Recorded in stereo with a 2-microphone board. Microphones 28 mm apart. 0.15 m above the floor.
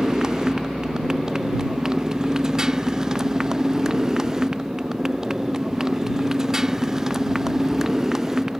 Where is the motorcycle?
25° right (ahead or behind); by 8.6 s 20° right (ahead or behind).